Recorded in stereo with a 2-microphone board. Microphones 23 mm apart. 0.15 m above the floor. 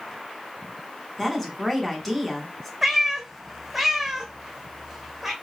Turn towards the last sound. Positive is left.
turn(degrees=-10)  # may be behind; listen again after turning